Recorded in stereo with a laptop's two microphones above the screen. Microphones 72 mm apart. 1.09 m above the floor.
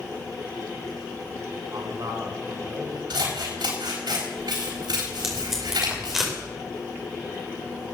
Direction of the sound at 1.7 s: 60° right (ahead or behind).